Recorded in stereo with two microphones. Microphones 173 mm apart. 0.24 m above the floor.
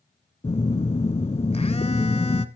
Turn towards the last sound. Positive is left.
turn(degrees=35)  # may be behind; listen again after turning